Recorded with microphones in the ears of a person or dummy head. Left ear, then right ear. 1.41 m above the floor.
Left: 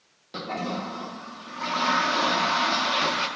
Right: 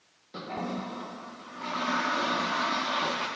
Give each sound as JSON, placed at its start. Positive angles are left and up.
{"t": 0.3, "sound": "a toilet flushing", "side_deg": 30, "distance_m": 0.7}